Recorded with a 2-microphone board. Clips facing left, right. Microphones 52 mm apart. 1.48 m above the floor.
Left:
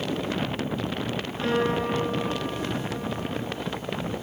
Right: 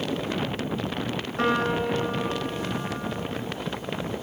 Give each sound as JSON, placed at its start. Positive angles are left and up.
{"t": 1.4, "sound": "a piano", "side_deg": -70, "distance_m": 7.5}